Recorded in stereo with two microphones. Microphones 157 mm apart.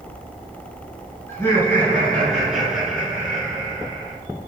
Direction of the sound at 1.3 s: 20° left (ahead or behind).